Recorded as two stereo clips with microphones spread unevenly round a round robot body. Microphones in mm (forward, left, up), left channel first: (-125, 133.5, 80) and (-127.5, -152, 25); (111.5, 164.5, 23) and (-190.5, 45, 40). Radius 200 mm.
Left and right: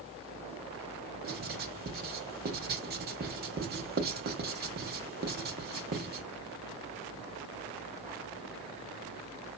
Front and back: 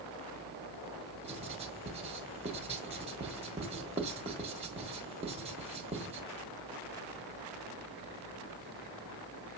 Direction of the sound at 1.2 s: 90° right.